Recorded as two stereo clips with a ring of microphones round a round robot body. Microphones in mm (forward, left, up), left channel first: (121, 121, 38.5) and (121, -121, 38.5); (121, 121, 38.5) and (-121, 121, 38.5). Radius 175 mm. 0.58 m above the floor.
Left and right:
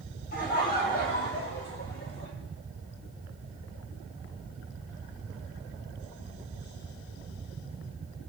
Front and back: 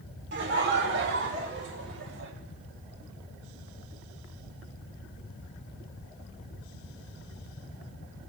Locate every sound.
0.3 s laughter: 145° left, 2.5 m; by 2.3 s 150° left, 4.5 m